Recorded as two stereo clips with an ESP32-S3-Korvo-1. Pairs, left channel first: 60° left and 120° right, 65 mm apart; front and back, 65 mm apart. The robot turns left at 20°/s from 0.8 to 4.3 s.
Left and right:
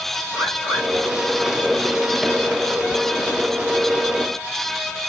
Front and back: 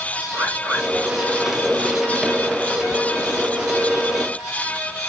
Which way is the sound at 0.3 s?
115° right.